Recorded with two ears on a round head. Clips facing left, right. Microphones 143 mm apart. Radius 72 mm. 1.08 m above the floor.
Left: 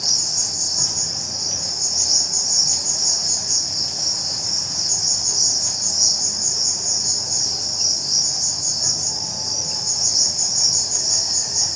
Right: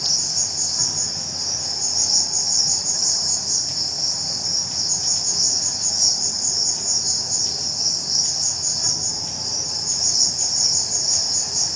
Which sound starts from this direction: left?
An insect, at 0.0 s.